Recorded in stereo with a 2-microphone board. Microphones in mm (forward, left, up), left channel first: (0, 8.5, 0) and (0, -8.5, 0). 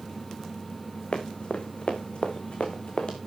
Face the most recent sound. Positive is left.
turn(degrees=55)  # may be behind; listen again after turning